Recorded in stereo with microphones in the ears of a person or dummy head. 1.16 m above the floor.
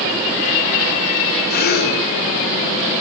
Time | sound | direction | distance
1.5 | a gasp | 50° left (ahead or behind) | 3.5 m